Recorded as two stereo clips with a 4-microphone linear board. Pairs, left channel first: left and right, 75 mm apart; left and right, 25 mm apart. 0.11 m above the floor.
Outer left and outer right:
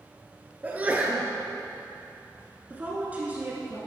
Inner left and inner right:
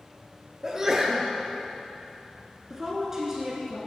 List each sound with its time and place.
0.6 s a sneeze: 20° right (ahead or behind), 1.2 m
2.7 s a woman speaking: 20° right (ahead or behind), 1.2 m